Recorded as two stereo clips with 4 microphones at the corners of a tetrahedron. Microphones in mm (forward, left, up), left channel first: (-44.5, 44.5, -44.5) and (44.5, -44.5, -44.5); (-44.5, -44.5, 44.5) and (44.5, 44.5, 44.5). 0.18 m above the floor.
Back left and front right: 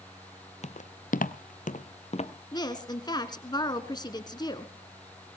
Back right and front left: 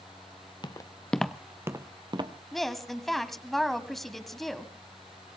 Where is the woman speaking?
135° left, 1.5 m.